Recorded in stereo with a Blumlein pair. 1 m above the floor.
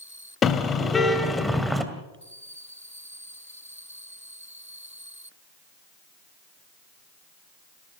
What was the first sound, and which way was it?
A car horn, 20° left.